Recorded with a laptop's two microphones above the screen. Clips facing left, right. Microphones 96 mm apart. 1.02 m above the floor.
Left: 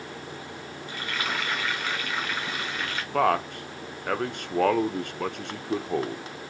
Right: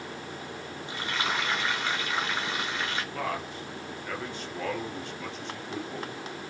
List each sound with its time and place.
0.9 s frying: 25° right (ahead or behind), 1.6 m
3.1 s a man speaking: 60° left (ahead or behind), 0.5 m